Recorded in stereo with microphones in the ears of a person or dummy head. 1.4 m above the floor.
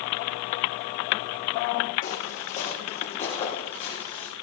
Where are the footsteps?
45° left (ahead or behind), 4 m; by 4.3 s 30° left (ahead or behind), 4.5 m.